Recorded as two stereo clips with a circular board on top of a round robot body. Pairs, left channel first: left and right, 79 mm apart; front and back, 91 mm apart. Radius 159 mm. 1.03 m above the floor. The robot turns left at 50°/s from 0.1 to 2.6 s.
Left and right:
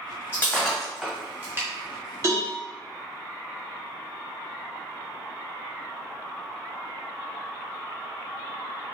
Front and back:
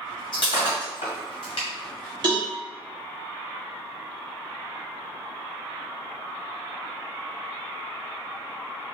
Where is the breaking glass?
25° left, 1.4 m; by 1.7 s 40° right, 1.4 m.